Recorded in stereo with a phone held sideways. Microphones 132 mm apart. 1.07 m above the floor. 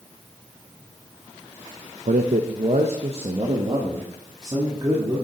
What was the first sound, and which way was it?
A man speaking, 70° right (ahead or behind).